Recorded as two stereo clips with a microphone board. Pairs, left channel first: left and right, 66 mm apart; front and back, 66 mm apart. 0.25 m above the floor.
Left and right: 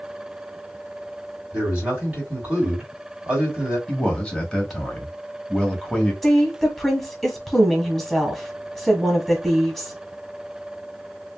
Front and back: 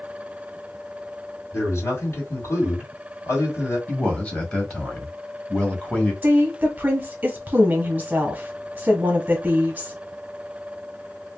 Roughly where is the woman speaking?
Behind.